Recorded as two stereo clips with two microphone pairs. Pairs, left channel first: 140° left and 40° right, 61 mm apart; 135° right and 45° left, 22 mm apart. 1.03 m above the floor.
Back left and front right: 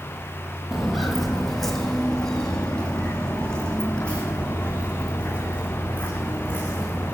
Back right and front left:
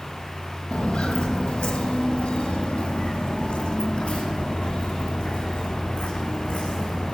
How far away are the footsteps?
About 2 m.